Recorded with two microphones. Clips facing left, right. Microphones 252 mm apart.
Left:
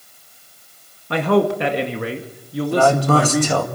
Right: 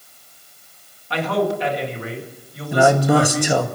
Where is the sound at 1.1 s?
50° left (ahead or behind), 1.9 m; by 3.7 s 60° left (ahead or behind), 3 m.